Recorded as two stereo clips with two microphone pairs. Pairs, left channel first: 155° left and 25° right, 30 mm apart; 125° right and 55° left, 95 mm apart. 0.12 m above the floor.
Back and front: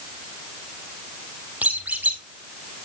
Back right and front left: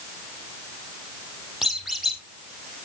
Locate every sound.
1.6 s a squeak: 30° right, 2.5 m